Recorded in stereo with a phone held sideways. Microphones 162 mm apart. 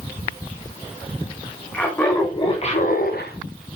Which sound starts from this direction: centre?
Laughter, at 1.7 s.